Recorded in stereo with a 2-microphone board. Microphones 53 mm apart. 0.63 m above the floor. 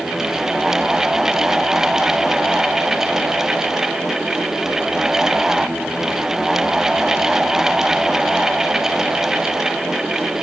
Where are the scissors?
No scissors in this recording.